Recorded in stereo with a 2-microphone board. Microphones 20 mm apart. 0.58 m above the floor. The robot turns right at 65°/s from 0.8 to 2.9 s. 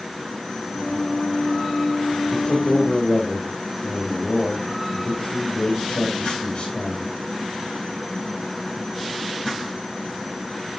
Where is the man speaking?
60° left, 2.5 m; by 7.1 s 100° left, 2.5 m.